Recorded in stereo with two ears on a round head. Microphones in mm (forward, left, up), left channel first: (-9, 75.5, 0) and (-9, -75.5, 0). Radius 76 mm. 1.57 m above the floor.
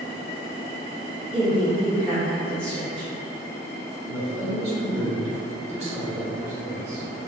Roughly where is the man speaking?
Right.